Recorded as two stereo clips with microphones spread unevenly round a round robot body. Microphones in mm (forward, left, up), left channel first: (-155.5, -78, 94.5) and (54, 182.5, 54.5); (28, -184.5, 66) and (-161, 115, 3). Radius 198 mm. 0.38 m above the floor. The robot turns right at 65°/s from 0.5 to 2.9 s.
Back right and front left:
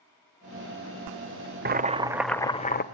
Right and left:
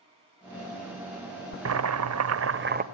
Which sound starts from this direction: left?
Boiling, at 1.6 s.